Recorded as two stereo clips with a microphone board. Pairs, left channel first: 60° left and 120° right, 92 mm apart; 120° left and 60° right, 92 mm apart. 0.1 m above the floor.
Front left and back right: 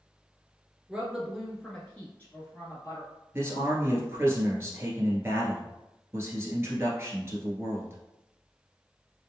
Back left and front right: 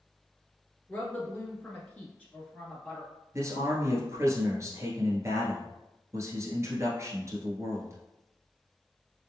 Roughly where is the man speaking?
Right.